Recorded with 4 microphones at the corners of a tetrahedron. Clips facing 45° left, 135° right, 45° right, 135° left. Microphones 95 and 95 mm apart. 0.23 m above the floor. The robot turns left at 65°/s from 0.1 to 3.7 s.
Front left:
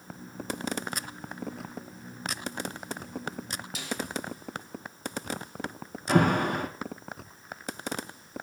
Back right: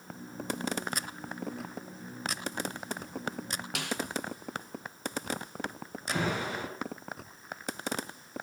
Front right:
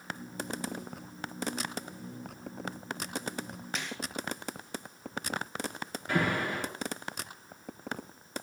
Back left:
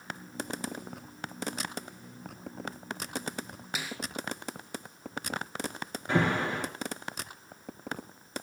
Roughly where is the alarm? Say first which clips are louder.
Front left 9 dB, back left 2 dB; left.